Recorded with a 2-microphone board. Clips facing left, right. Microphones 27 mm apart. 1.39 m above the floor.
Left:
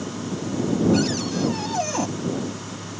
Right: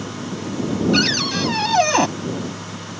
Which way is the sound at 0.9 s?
60° right (ahead or behind).